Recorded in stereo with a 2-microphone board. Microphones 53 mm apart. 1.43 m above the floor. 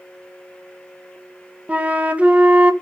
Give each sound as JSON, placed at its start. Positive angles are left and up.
{"t": 1.7, "sound": "a flute", "side_deg": -25, "distance_m": 0.6}